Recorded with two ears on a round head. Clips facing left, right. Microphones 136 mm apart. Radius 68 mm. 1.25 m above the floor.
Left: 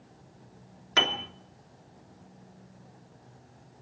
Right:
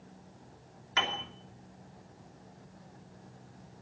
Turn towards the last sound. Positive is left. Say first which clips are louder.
# left 4 dB
turn(degrees=60)  # may be behind; listen again after turning